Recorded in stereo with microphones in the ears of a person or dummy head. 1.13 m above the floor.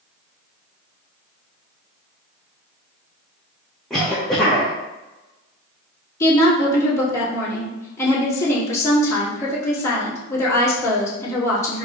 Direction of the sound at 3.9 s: Centre (ahead or behind).